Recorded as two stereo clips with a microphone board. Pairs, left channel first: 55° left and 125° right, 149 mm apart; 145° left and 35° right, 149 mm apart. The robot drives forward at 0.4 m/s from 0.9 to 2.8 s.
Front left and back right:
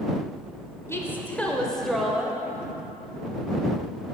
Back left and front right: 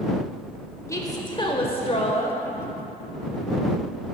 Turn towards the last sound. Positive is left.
turn(degrees=155)